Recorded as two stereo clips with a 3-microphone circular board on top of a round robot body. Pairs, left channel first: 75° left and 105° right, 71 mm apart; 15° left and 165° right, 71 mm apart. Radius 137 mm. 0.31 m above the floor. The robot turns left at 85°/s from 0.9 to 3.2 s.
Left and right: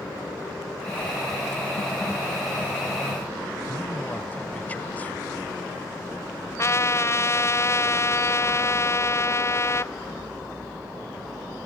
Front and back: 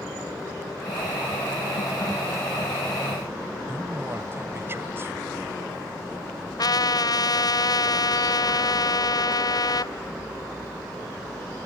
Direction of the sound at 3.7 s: 140° left.